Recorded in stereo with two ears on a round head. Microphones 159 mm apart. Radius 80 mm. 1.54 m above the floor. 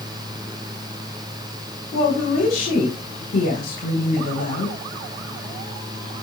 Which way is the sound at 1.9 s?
50° left (ahead or behind).